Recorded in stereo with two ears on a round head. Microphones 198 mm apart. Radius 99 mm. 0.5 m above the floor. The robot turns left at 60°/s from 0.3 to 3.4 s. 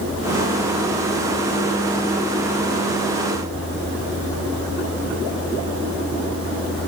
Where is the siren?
I don't hear a siren.